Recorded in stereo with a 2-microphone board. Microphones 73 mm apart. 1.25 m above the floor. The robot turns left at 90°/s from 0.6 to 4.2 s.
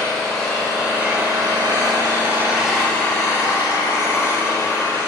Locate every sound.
0.0 s an engine running: 10° left, 1.8 m; by 5.1 s 45° left, 1.8 m